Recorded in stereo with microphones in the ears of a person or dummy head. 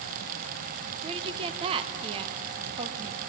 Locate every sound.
1.0 s a woman speaking: 30° right (ahead or behind), 1.0 m